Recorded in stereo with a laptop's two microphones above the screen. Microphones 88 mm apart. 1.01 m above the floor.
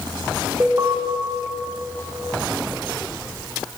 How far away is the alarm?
About 2.0 m.